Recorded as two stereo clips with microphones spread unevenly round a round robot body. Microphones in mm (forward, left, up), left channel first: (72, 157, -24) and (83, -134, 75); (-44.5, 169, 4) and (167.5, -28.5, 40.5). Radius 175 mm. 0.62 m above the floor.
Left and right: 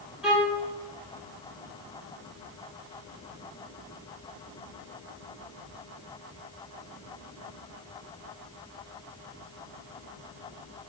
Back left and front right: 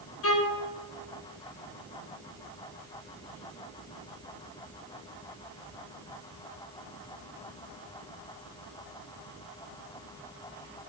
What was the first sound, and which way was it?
A violin, 175° left.